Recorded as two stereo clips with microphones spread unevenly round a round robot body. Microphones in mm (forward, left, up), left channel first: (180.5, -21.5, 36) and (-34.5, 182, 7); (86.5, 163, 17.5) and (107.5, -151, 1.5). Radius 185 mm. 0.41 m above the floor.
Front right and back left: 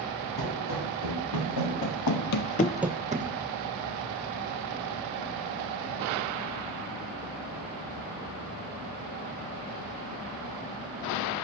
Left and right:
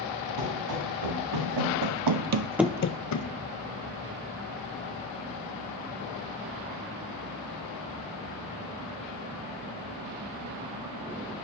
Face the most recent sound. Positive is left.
turn(degrees=75)